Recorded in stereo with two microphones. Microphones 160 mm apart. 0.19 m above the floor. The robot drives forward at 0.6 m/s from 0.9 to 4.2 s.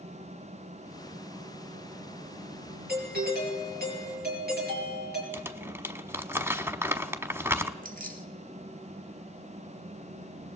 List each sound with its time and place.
2.9 s a doorbell: 70° right (ahead or behind), 5.5 m
5.3 s crumpling: 15° right (ahead or behind), 1.0 m
7.8 s keys jangling: 60° right (ahead or behind), 1.6 m